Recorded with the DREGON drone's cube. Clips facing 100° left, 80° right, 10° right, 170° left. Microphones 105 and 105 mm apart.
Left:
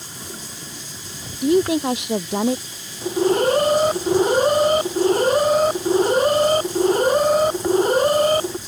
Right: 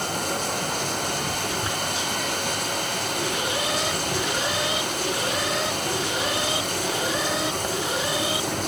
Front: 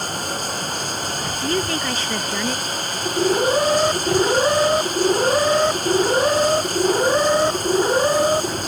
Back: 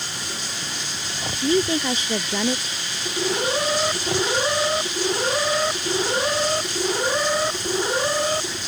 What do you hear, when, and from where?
0.0 s running water: 55° right
1.4 s a woman speaking: 95° left
3.0 s an alarm: 60° left